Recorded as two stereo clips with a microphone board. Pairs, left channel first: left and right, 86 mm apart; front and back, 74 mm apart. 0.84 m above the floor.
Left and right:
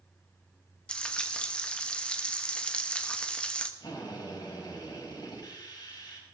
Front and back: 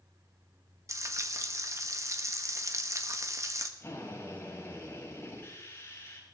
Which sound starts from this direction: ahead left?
A drill, at 3.8 s.